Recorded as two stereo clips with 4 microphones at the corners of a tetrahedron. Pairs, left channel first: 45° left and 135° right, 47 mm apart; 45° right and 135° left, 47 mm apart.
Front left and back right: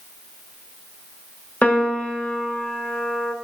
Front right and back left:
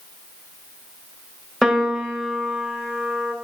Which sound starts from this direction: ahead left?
A piano, at 1.6 s.